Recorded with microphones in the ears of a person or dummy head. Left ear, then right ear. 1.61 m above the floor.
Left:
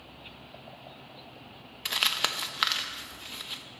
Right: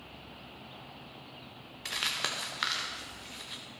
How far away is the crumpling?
About 0.5 m.